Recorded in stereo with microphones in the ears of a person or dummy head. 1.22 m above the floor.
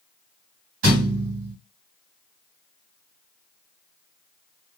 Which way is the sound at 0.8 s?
60° right (ahead or behind).